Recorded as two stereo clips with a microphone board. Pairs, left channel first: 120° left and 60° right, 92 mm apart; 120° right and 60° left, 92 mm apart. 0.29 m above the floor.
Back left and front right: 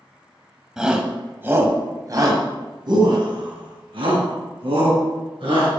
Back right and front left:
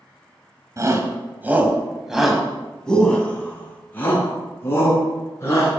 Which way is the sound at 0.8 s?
20° left.